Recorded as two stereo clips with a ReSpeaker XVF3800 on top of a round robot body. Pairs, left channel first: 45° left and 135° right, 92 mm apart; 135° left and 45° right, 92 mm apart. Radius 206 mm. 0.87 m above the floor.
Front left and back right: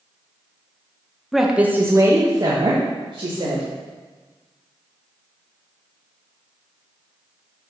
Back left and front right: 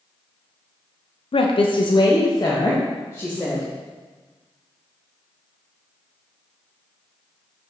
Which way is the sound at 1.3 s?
135° left.